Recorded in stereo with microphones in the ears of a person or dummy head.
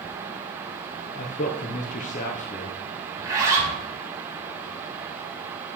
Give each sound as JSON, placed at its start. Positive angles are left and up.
{"t": 1.1, "sound": "a man speaking", "side_deg": 35, "distance_m": 0.6}
{"t": 3.1, "sound": "a zipper", "side_deg": -20, "distance_m": 2.5}